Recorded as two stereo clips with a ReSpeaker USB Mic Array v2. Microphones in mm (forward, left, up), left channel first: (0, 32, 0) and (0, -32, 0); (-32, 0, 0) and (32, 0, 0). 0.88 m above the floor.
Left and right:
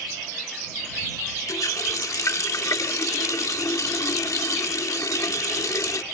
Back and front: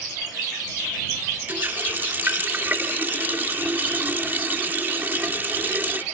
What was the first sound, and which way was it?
A running tap, 60° left.